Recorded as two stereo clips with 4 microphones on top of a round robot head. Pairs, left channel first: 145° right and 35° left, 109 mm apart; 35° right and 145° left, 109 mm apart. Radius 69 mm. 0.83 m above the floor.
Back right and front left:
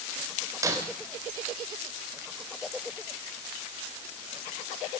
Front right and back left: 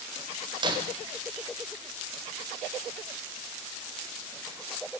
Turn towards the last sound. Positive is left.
turn(degrees=95)